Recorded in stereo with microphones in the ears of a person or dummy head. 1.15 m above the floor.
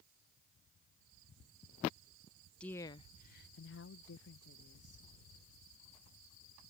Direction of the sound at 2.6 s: 10° left (ahead or behind).